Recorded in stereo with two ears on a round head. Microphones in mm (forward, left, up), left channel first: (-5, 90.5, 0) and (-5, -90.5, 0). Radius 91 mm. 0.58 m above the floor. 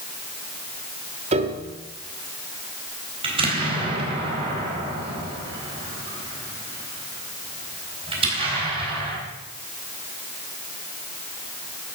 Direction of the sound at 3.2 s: 25° right (ahead or behind).